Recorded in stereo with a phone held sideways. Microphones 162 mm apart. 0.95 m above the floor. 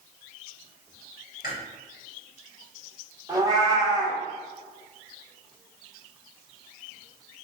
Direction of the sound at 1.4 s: 70° left (ahead or behind).